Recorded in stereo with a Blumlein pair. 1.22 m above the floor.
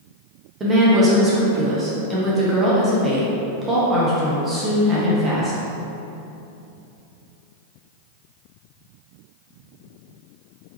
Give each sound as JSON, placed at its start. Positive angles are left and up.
{"t": 0.6, "sound": "a woman speaking", "azimuth_deg": -20, "distance_m": 0.9}